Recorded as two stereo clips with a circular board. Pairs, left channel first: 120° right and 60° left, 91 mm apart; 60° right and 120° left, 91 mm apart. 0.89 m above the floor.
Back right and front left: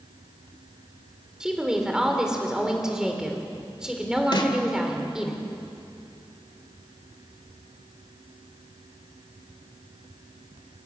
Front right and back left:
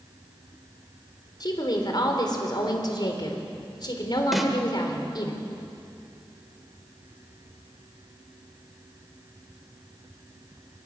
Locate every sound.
1.4 s a woman speaking: 20° right, 3.5 m
4.3 s a snare drum: 150° right, 1.9 m